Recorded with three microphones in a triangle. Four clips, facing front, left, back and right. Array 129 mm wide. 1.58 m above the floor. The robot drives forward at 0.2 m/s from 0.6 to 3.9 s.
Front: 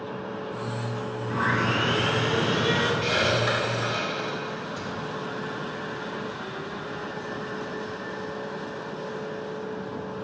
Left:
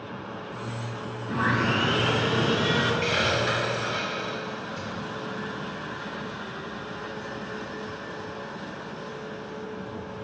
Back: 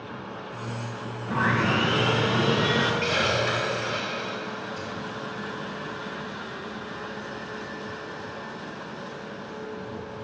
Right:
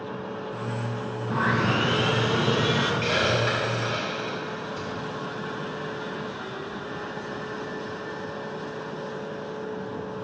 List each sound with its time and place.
1.3 s sawing: 130° right, 1.0 m; by 2.9 s 145° right, 1.2 m
3.0 s a hiss: 75° right, 2.5 m; by 4.9 s 80° right, 2.5 m